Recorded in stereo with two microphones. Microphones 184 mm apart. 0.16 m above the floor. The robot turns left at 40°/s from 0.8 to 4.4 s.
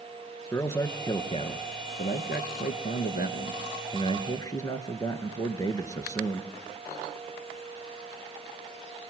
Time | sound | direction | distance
0.5 | a man speaking | 165° left | 2.5 m